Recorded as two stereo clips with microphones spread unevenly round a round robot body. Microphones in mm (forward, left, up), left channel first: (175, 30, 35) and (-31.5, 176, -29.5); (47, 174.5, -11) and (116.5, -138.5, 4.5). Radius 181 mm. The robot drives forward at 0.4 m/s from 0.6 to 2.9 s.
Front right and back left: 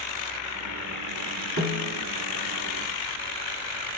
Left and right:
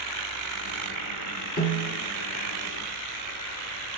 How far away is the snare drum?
About 1.4 m.